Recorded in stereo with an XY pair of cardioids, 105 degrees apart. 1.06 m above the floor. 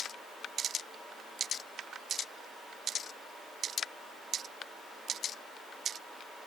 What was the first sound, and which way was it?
Only background noise.